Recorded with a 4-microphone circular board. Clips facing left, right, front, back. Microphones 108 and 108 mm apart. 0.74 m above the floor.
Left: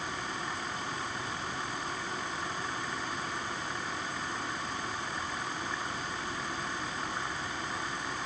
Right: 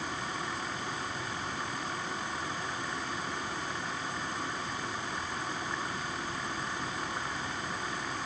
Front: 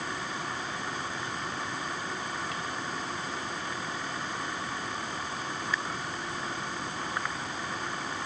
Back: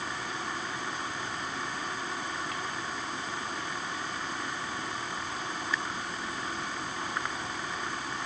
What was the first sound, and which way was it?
Only background noise.